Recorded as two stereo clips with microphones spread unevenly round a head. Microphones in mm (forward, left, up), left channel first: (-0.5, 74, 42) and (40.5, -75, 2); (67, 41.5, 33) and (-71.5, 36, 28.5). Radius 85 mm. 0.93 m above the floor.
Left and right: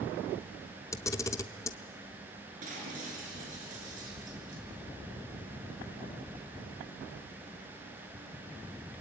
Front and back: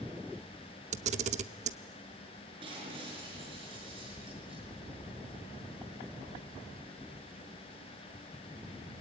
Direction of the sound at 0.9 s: 160° left.